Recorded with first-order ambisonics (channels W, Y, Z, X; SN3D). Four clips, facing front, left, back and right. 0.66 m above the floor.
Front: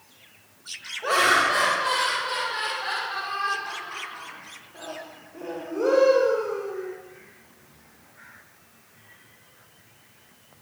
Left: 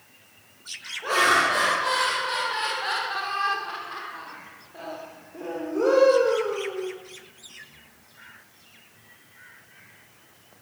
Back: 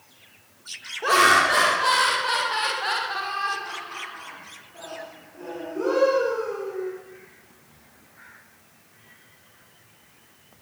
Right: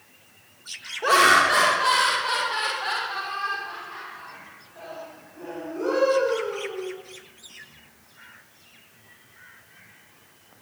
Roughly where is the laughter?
Behind right.